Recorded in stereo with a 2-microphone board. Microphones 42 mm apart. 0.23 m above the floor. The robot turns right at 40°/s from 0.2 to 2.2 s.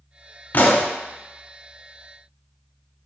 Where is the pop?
50° left (ahead or behind), 0.9 m; by 0.9 s 55° left (ahead or behind), 0.9 m.